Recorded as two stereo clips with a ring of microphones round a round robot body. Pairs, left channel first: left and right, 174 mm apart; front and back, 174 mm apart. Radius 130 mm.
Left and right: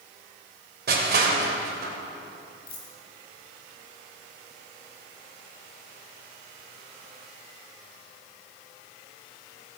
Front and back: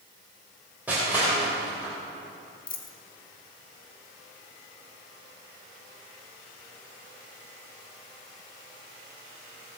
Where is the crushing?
100° right, 3 m.